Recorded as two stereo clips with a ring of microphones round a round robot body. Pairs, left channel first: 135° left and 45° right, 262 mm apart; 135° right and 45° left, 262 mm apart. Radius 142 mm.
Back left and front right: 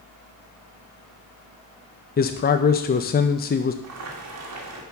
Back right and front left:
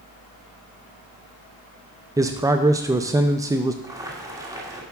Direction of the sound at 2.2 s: 115° left.